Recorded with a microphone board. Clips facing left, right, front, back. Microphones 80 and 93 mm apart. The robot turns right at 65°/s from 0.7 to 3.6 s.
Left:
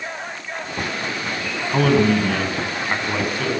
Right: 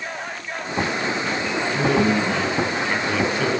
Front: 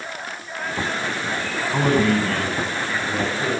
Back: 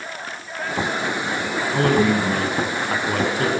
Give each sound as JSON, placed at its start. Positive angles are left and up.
{"t": 1.7, "sound": "a man speaking", "azimuth_deg": 70, "distance_m": 9.5}